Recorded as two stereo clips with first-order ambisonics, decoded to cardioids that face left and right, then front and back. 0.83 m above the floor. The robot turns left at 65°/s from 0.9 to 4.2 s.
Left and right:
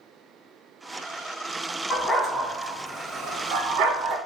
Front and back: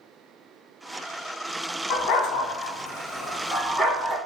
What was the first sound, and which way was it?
A dog barking, 20° left.